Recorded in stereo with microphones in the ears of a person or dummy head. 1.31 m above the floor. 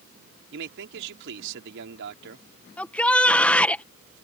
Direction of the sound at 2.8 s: 5° left (ahead or behind).